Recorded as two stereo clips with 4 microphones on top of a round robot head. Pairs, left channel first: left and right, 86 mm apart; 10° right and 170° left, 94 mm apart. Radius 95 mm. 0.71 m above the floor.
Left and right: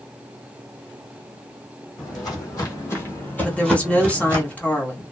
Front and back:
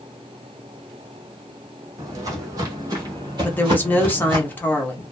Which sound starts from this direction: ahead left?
A woman speaking, at 3.4 s.